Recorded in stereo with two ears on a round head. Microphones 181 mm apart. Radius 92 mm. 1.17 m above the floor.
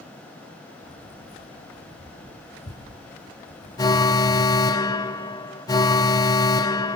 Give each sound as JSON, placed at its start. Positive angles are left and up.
{"t": 0.8, "sound": "keys jangling", "side_deg": 30, "distance_m": 7.0}
{"t": 3.8, "sound": "an alarm", "side_deg": 20, "distance_m": 1.0}